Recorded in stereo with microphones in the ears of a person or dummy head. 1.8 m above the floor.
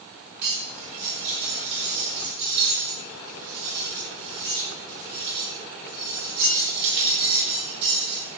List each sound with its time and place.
0.4 s cutlery clinking: 60° right (ahead or behind), 6 m